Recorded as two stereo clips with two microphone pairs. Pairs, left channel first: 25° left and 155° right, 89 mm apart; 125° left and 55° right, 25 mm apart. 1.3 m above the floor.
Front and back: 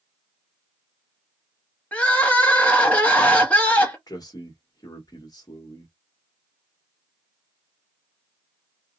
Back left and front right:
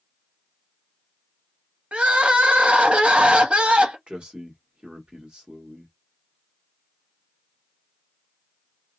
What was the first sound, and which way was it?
Crying, 45° right.